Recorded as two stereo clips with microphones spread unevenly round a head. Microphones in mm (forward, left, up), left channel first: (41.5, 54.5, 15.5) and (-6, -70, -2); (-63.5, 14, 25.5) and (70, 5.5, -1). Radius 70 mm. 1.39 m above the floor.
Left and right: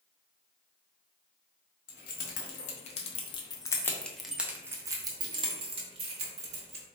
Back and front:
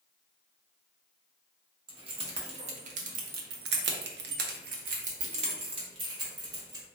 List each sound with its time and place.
1.9 s keys jangling: 55° left, 1.2 m; by 6.8 s 70° right, 1.7 m